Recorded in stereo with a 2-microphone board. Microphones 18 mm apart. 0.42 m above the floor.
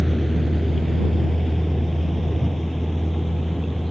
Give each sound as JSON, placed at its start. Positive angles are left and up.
{"t": 0.0, "sound": "a vehicle", "side_deg": 20}